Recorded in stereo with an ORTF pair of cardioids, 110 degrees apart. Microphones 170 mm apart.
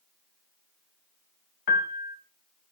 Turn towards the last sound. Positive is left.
turn(degrees=60)